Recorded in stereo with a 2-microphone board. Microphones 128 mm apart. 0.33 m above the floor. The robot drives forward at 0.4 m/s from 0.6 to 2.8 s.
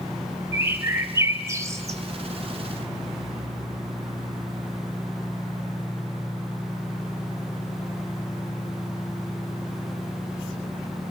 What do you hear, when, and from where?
0.5 s a bird: 20° right (ahead or behind), 1.5 m; by 2.0 s 25° right (ahead or behind), 1.3 m